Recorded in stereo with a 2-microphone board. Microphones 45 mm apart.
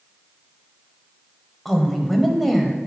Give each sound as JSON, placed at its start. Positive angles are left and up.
{"t": 1.6, "sound": "a woman speaking", "side_deg": 5, "distance_m": 1.1}